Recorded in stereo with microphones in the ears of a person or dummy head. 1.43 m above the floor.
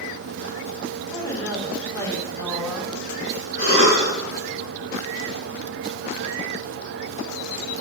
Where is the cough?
50° left (ahead or behind), 5 m.